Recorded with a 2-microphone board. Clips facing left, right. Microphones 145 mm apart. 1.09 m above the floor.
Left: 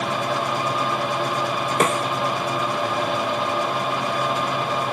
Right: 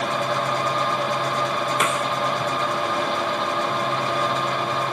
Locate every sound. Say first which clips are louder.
1.8 s a snare drum: left 6 dB; 35° left (ahead or behind)